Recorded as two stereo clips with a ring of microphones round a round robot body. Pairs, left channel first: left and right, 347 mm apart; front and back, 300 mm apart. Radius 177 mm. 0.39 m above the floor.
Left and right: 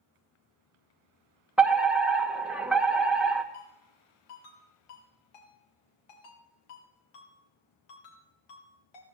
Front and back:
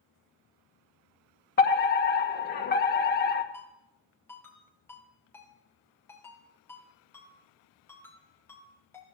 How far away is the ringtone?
About 4.5 m.